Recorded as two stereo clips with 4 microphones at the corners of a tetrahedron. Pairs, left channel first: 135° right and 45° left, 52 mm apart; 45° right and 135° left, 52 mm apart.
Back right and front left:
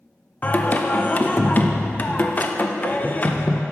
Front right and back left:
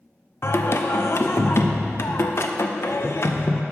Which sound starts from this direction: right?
Singing, at 0.4 s.